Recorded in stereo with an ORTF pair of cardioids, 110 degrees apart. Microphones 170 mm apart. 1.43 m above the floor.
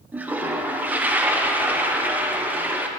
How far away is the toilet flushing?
About 0.9 m.